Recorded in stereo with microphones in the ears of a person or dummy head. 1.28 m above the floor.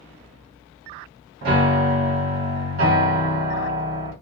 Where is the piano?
65° right (ahead or behind), 1.2 m.